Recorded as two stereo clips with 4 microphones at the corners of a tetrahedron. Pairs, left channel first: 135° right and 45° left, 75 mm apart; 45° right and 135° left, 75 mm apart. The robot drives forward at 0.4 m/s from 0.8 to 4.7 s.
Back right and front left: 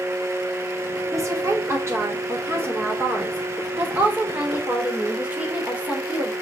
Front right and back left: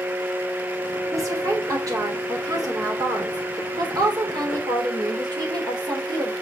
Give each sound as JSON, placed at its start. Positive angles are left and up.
{"t": 1.1, "sound": "a woman speaking", "azimuth_deg": 90, "distance_m": 3.0}